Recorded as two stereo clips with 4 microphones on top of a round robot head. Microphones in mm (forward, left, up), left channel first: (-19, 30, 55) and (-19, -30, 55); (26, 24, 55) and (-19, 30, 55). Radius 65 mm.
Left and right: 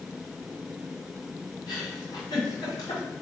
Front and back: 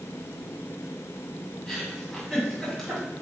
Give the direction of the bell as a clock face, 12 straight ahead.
No bell in this recording.